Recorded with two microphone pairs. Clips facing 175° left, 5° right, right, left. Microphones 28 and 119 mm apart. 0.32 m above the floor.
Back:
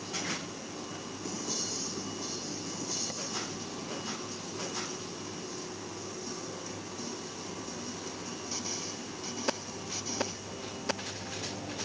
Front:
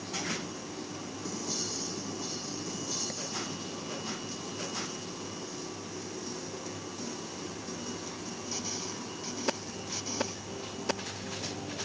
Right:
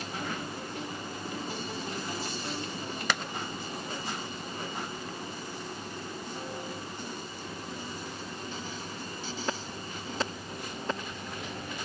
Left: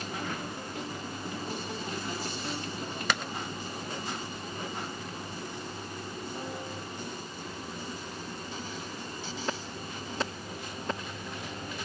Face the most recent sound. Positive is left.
No sound to turn to.